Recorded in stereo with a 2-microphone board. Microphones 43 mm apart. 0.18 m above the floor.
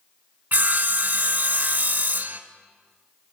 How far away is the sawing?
About 0.6 m.